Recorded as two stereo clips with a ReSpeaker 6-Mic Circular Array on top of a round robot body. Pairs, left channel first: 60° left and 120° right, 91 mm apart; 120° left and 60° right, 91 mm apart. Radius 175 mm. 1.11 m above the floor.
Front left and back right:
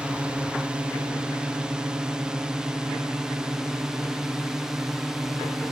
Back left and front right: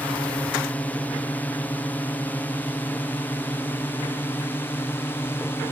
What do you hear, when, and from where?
0.0 s a drone: 175° left; by 5.7 s 160° left